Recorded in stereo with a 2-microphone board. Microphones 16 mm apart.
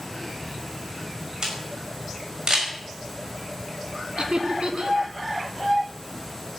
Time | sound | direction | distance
1.4 | a camera shutter | 35° right (ahead or behind) | 5.5 m
4.2 | laughter | 55° right (ahead or behind) | 2 m